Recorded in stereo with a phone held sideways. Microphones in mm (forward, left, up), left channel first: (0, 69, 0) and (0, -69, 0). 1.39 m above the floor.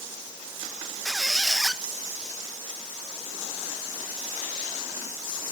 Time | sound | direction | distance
1.1 | a squeak | centre (ahead or behind) | 0.7 m